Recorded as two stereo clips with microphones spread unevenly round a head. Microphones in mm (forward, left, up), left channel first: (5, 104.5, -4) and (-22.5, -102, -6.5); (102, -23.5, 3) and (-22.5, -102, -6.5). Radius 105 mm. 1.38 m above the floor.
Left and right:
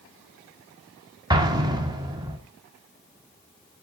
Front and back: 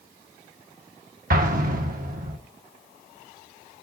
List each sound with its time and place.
1.3 s an explosion: 165° right, 1.3 m